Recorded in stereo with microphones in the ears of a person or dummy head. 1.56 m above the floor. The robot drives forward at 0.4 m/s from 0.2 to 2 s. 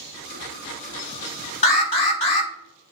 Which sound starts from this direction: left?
An alarm, at 1.6 s.